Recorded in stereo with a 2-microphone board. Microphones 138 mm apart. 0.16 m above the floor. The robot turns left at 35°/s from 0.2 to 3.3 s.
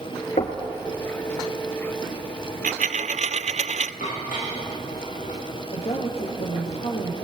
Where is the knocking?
55° left (ahead or behind), 3 m; by 0.6 s 60° left (ahead or behind), 3 m.